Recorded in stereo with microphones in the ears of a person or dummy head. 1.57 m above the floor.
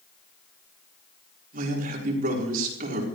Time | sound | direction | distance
1.5 | a man speaking | 50° right (ahead or behind) | 4.5 m